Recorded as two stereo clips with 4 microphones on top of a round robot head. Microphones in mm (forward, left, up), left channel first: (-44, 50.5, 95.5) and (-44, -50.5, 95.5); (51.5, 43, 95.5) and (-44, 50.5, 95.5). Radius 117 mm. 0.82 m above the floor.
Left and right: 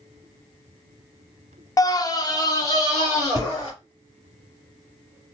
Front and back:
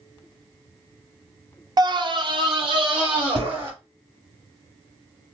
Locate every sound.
1.8 s a scream: 140° left, 0.5 m; by 3.7 s 145° left, 2.5 m